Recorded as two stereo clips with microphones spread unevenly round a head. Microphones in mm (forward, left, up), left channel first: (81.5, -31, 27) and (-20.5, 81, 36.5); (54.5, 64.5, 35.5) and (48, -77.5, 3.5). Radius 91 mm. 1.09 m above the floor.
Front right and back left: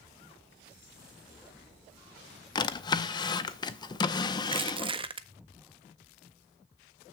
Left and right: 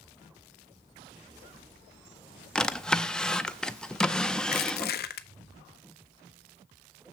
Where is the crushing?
75° left, 0.6 m.